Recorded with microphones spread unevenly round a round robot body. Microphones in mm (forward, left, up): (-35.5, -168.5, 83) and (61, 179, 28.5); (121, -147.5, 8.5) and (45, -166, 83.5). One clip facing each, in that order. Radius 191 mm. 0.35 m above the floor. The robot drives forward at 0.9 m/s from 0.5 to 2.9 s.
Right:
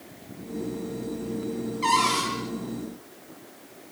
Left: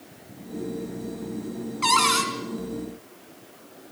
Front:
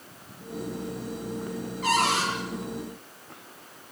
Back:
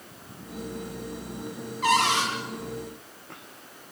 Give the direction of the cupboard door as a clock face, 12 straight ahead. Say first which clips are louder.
Even, back 2 dB; 8 o'clock.